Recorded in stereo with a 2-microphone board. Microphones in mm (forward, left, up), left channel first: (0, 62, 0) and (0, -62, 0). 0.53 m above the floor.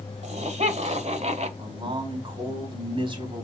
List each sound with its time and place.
0.2 s laughter: 60° right (ahead or behind), 2.5 m; by 1.5 s 55° right (ahead or behind), 1.8 m
1.6 s a man speaking: 40° right (ahead or behind), 4.5 m